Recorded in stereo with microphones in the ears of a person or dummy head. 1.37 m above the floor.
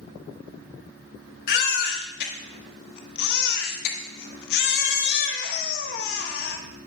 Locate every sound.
1.5 s a baby crying: 55° left (ahead or behind), 1.0 m